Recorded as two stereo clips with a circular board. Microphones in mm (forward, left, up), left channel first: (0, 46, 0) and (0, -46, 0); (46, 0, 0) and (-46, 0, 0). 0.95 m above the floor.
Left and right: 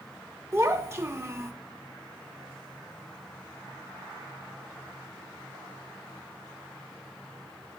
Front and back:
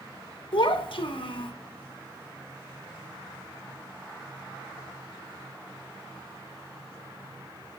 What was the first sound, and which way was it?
A child speaking, 30° right.